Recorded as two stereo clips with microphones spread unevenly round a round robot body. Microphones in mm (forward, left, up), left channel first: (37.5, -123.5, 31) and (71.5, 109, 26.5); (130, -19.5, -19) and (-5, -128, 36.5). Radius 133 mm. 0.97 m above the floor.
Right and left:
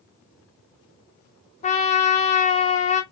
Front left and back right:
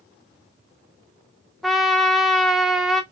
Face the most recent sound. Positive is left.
turn(degrees=-85)